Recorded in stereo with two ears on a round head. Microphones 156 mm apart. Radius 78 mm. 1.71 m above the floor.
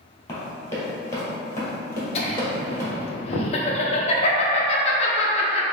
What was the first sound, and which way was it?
Running footsteps, 15° left (ahead or behind).